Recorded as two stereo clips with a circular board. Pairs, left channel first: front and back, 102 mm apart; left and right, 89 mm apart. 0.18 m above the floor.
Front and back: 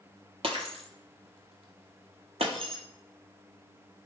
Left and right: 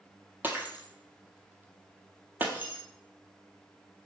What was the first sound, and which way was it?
Breaking glass, 160° right.